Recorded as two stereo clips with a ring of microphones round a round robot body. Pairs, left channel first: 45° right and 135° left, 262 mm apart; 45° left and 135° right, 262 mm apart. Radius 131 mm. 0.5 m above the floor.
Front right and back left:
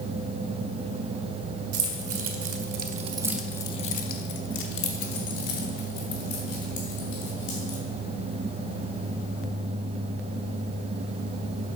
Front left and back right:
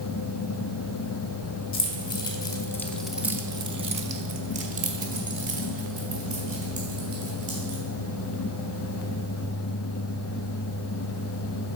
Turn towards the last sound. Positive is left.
turn(degrees=-75)